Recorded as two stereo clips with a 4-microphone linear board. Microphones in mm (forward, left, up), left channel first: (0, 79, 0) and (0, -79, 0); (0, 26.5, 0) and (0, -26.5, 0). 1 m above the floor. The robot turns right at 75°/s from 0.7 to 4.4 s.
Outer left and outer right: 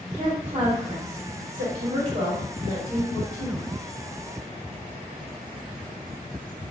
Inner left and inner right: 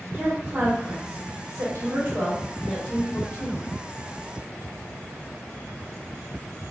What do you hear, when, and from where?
0.1 s a woman speaking: 30° right (ahead or behind), 1.1 m; by 3.7 s 75° left (ahead or behind), 1.1 m